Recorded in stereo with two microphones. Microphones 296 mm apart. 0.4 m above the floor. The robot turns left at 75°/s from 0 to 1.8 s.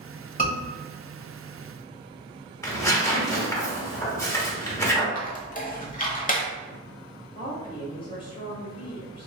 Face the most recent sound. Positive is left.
turn(degrees=20)  # may be behind; listen again after turning